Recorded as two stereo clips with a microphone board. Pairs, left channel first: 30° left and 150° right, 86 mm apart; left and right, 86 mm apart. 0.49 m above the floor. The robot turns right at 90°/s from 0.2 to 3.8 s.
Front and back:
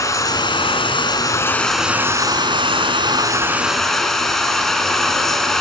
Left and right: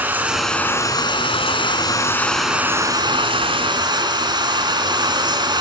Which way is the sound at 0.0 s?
20° right.